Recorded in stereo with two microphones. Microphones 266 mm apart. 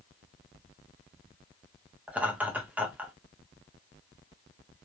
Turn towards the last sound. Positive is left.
turn(degrees=-5)  # may be behind; listen again after turning